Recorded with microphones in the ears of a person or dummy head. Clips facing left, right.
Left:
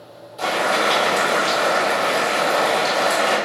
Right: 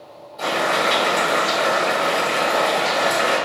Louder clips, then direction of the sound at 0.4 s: Left 1 dB; 45° left (ahead or behind).